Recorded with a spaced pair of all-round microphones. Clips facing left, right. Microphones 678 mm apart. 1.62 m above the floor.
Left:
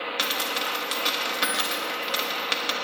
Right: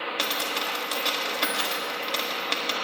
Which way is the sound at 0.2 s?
40° left (ahead or behind).